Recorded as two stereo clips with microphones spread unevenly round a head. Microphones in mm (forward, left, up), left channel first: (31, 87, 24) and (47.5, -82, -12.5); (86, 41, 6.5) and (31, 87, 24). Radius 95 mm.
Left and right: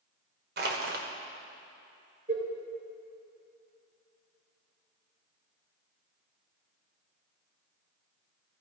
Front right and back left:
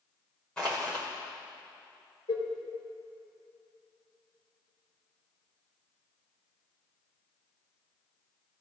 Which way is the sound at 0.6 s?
130° right.